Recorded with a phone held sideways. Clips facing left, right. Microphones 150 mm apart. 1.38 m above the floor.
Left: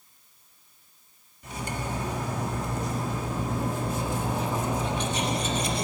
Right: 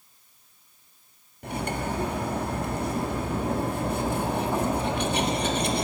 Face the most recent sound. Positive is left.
turn(degrees=-60)  # may be behind; listen again after turning